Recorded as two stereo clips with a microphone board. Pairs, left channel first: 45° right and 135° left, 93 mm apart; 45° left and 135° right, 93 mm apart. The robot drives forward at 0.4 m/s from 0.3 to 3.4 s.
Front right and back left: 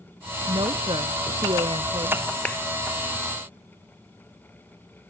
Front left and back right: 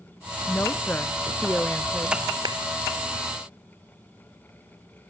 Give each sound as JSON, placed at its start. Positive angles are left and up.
{"t": 0.5, "sound": "a woman speaking", "azimuth_deg": 110}
{"t": 2.5, "sound": "a clap", "azimuth_deg": -115}